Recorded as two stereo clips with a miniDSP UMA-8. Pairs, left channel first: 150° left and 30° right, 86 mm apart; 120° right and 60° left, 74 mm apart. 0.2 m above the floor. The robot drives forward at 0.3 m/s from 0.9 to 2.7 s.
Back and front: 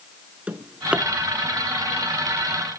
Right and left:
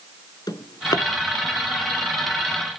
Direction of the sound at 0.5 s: 105° right.